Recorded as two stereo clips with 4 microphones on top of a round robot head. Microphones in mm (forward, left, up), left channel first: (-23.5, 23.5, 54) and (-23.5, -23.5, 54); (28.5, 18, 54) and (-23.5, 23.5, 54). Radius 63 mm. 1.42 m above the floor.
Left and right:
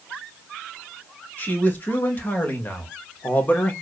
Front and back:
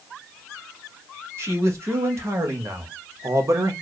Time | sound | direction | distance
1.4 | a man speaking | 145° left | 2.5 m